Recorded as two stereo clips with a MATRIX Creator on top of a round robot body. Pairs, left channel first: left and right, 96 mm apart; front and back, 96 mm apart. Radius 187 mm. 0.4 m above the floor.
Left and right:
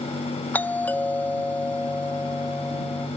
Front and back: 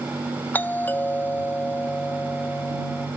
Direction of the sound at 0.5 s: 45° left.